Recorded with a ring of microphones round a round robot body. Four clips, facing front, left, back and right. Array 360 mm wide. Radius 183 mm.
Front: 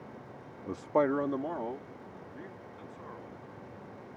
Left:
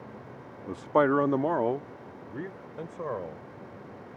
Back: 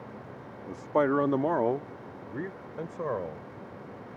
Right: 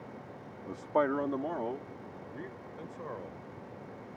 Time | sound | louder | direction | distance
0.7 | a man speaking | left 6 dB, back 2 dB | 45° left | ?